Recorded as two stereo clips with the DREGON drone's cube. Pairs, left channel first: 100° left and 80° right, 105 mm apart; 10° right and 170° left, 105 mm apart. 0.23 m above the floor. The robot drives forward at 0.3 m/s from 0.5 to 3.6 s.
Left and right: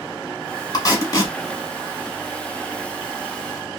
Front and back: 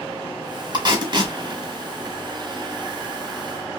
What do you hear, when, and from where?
0.7 s tape being pulled: 140° left, 1.0 m; by 1.4 s 145° left, 1.1 m